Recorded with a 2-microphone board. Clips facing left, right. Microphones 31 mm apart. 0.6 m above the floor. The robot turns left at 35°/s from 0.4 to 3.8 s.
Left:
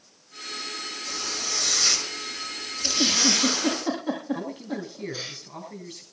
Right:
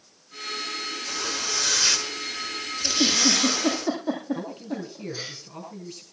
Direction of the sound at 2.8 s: 25° left (ahead or behind).